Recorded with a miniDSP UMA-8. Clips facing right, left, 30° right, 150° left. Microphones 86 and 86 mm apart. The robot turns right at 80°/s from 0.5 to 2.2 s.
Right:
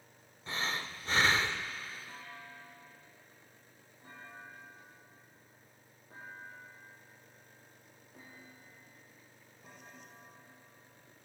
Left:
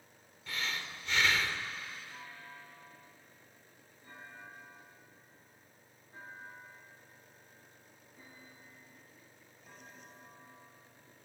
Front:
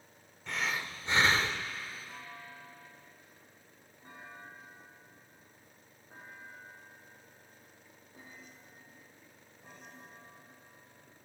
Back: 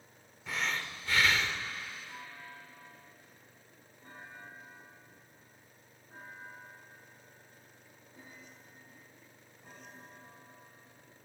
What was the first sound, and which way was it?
Breathing, 125° right.